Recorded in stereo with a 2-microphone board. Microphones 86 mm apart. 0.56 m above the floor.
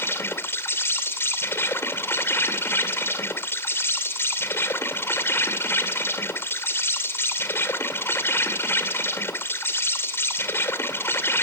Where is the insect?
25° left (ahead or behind), 1.9 m.